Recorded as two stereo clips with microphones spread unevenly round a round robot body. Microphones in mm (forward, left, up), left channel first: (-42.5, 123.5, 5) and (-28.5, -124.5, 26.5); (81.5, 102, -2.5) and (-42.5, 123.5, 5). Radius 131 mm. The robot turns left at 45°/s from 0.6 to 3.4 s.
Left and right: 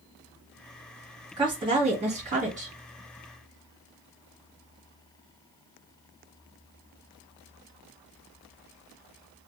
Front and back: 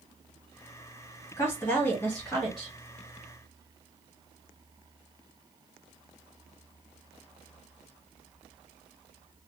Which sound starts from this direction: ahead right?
A woman speaking, at 1.4 s.